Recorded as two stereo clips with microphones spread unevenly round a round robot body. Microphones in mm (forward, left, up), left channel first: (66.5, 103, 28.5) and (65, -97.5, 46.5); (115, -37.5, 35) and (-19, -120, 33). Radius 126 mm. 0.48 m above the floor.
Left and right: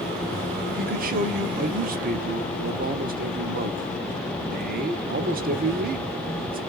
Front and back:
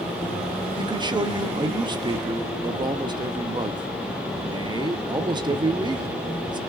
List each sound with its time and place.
0.8 s a man speaking: 105° right, 0.9 m